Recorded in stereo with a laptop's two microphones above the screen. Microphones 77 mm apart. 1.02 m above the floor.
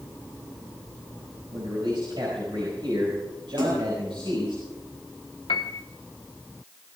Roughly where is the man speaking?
Right.